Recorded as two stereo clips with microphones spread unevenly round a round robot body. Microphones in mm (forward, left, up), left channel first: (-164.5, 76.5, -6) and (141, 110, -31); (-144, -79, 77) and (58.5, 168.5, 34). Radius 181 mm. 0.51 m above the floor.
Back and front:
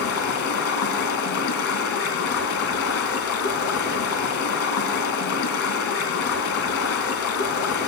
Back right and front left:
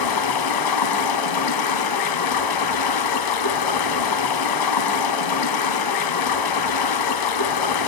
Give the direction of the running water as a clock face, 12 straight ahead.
4 o'clock.